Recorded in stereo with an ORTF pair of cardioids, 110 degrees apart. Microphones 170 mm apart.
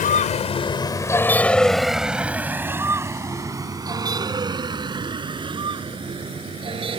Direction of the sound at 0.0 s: 55° left.